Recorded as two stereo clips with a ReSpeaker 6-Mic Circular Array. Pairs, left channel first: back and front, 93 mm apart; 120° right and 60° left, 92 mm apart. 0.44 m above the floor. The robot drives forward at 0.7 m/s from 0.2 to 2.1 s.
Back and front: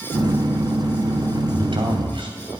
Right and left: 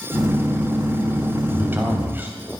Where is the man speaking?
5° right, 3.5 m.